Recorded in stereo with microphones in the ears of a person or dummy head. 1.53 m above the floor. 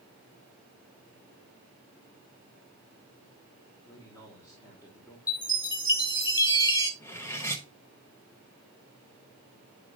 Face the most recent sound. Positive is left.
turn(degrees=5)  # may be behind; listen again after turning